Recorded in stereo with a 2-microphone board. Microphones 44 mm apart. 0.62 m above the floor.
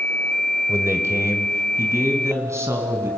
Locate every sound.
0.7 s a man speaking: 75° right (ahead or behind), 2 m; by 3.1 s 85° right, 5 m